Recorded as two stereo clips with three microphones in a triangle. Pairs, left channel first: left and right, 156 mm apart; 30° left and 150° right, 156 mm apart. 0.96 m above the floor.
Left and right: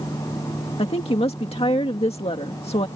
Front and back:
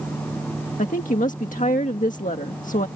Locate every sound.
0.8 s a woman speaking: 45° left